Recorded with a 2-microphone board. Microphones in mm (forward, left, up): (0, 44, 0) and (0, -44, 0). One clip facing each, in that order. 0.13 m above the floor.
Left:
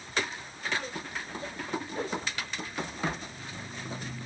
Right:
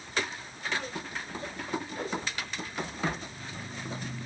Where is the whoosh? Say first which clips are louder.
Left 3 dB; 30° left (ahead or behind), 6.5 m.